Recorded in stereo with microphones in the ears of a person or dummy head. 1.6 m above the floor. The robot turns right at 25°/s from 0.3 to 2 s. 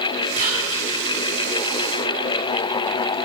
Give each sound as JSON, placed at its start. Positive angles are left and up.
{"t": 0.4, "sound": "whispering", "side_deg": -40, "distance_m": 4.0}